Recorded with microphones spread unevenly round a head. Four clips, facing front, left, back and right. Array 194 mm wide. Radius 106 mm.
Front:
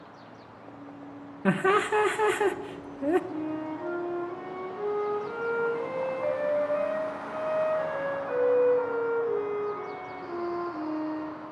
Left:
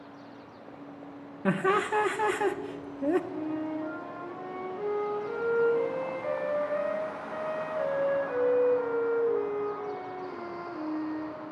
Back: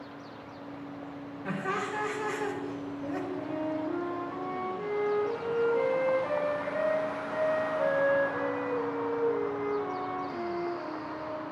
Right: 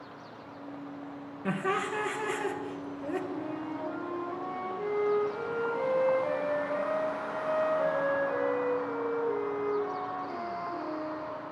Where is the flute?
Straight ahead, 3 m.